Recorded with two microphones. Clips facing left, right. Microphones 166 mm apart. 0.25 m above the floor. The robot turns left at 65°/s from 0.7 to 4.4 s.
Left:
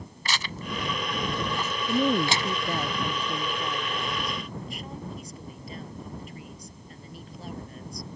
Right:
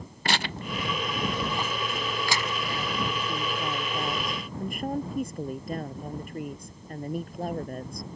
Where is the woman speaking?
100° left; by 8.1 s 65° right.